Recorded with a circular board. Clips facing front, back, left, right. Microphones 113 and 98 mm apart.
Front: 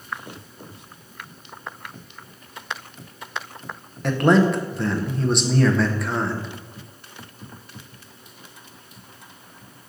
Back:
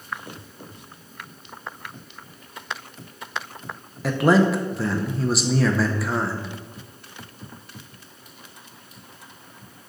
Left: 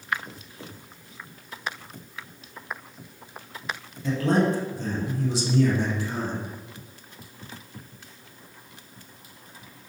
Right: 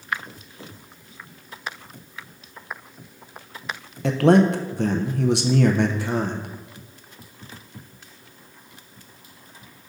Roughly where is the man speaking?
Right.